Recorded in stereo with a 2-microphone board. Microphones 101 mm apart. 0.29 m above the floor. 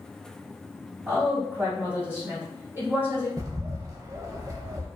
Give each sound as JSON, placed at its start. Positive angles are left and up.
{"t": 1.1, "sound": "a woman speaking", "side_deg": -25, "distance_m": 1.7}
{"t": 3.4, "sound": "a bird", "side_deg": -35, "distance_m": 0.5}